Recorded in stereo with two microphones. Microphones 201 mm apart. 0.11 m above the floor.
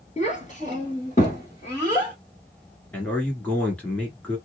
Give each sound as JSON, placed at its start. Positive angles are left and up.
{"t": 0.2, "sound": "a child speaking", "side_deg": 35, "distance_m": 1.1}
{"t": 2.9, "sound": "a man speaking", "side_deg": 5, "distance_m": 1.4}